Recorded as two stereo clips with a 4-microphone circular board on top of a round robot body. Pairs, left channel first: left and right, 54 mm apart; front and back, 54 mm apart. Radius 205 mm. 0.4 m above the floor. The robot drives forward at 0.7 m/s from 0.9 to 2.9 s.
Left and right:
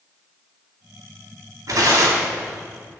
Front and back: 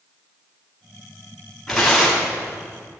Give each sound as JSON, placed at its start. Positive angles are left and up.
{"t": 1.7, "sound": "tearing paper", "azimuth_deg": -90, "distance_m": 1.6}